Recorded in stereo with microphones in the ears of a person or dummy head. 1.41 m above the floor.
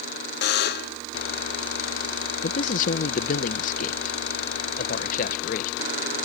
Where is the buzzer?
60° left (ahead or behind).